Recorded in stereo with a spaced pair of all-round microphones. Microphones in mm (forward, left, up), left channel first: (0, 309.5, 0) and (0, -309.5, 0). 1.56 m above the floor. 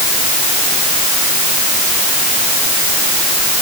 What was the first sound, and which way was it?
Only background noise.